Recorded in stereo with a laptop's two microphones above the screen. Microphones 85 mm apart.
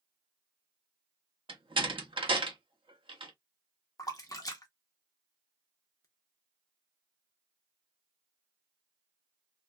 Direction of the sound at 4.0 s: 45° left (ahead or behind).